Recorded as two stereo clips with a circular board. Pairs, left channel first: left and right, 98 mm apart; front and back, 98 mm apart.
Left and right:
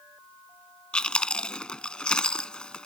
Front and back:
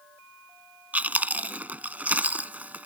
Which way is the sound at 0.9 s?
150° left.